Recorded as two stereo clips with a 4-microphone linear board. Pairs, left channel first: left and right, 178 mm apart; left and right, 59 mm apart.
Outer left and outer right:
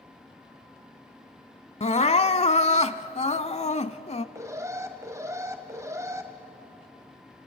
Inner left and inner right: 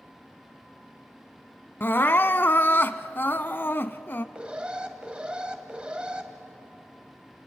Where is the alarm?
20° right (ahead or behind), 1.8 m.